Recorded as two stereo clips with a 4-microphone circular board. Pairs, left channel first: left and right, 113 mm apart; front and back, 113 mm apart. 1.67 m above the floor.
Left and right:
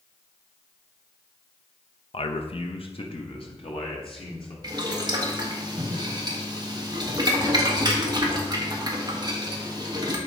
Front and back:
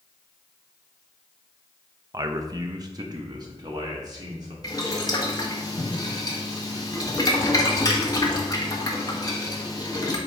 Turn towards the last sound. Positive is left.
turn(degrees=-50)